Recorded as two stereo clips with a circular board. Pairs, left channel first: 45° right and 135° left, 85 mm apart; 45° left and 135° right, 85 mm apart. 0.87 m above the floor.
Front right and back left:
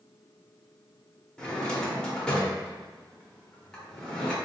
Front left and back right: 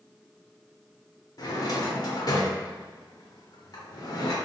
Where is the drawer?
35° left, 0.7 m.